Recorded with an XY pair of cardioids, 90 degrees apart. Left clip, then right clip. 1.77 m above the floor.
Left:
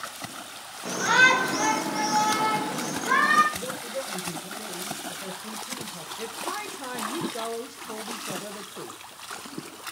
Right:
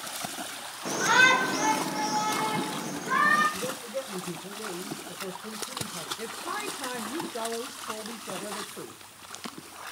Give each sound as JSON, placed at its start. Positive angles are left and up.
{"t": 0.8, "sound": "a shout", "azimuth_deg": -10, "distance_m": 1.6}
{"t": 3.5, "sound": "a man speaking", "azimuth_deg": -20, "distance_m": 1.6}
{"t": 6.2, "sound": "a woman speaking", "azimuth_deg": 0, "distance_m": 0.8}